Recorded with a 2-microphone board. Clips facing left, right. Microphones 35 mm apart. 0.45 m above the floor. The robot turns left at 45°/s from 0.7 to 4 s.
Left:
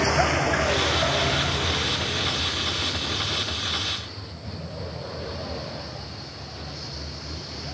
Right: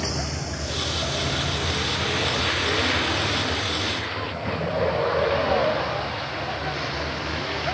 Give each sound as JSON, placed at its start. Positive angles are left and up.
{"t": 0.0, "sound": "a vehicle", "side_deg": 50}